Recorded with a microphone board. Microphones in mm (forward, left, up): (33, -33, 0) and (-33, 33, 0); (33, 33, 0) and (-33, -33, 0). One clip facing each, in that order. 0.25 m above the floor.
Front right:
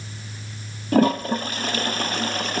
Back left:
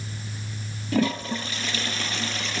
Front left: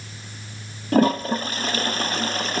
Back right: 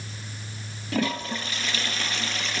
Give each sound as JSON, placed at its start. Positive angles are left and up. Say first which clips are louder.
{"t": 0.9, "sound": "a toilet flushing", "louder": "front right 6 dB, front left 9 dB", "azimuth_deg": 0, "distance_m": 1.2}